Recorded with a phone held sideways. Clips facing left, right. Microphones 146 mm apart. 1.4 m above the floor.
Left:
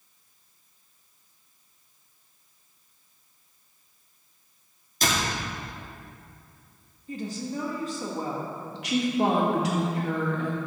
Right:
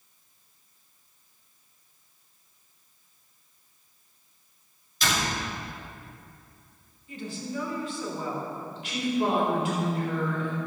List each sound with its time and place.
5.0 s a door slam: 45° left (ahead or behind), 2.5 m
7.1 s a woman speaking: 40° left (ahead or behind), 2 m
8.7 s a woman speaking: 85° left, 2.5 m